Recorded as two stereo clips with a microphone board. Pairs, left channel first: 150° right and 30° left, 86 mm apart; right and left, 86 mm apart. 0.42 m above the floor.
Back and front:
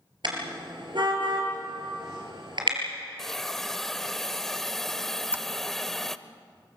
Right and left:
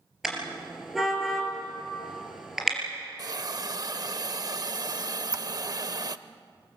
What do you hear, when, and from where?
0.2 s a car horn: 5° left, 4 m
3.2 s a hiss: 125° left, 0.6 m
5.2 s a squeak: 90° left, 0.6 m